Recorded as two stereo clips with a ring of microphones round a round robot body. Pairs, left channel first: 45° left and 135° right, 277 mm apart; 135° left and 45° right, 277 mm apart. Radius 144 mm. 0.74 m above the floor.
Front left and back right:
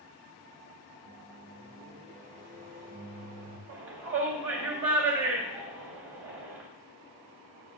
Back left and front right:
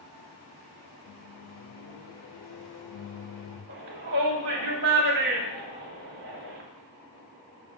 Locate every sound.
1.1 s a microwave: 165° left, 2 m
3.7 s a shout: 95° right, 2.5 m